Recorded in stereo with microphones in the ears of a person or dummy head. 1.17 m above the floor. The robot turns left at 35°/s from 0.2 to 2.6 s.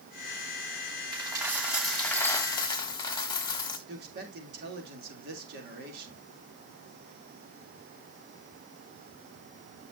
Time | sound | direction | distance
1.1 | a dropped coin | 160° right | 1.9 m
3.9 | a man speaking | 65° right (ahead or behind) | 3 m